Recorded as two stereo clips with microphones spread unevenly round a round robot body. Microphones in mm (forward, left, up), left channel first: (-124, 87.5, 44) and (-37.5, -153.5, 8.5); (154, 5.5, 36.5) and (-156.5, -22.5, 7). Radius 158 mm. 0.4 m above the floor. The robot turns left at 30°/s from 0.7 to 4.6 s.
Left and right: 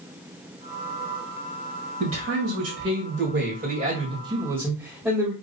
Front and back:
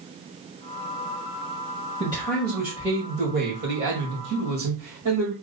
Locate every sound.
2.0 s a man speaking: 70° right, 2 m; by 5.3 s 150° right, 2 m